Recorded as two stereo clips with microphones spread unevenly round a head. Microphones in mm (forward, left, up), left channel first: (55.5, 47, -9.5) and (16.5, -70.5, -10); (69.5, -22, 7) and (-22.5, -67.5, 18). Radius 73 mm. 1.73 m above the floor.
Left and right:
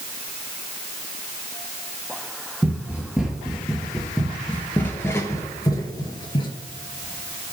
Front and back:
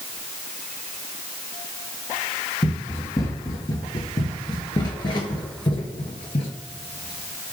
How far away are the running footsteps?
About 2.5 m.